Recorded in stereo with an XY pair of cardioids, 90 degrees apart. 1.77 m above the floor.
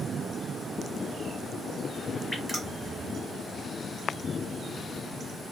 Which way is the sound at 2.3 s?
5° left.